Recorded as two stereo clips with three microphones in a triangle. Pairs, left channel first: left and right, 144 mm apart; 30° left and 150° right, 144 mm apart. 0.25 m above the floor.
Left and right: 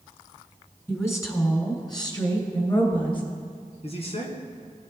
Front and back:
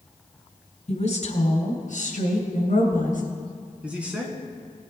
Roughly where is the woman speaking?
Ahead.